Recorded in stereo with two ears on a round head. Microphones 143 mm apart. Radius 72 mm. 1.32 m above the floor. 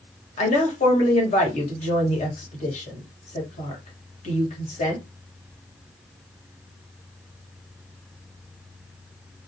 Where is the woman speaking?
45° left (ahead or behind), 1.3 m.